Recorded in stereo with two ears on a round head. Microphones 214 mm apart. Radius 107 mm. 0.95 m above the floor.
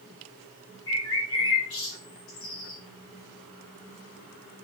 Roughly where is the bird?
Left.